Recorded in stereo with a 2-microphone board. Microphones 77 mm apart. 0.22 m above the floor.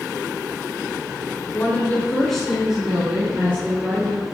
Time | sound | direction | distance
1.5 | a woman speaking | 30° left (ahead or behind) | 3 m